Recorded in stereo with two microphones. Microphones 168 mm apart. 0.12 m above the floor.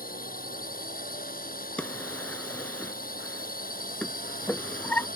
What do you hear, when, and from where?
0.0 s a drone: 60° left (ahead or behind)
1.8 s a drawer: 10° left (ahead or behind)